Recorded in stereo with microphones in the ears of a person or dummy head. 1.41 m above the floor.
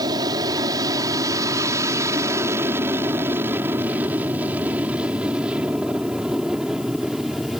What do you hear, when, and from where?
0.0 s an aircraft: 20° right (ahead or behind); by 7.6 s centre (ahead or behind)